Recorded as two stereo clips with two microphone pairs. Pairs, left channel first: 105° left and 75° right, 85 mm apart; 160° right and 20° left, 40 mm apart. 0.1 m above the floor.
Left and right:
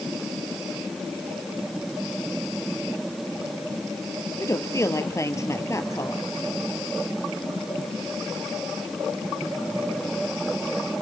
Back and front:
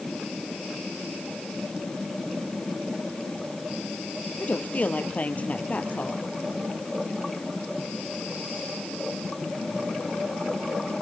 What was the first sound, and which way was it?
A woman speaking, 155° left.